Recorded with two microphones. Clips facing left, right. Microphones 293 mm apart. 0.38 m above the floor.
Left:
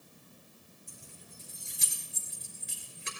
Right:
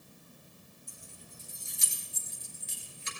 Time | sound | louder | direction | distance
0.9 | keys jangling | even | 75° left (ahead or behind) | 3.5 m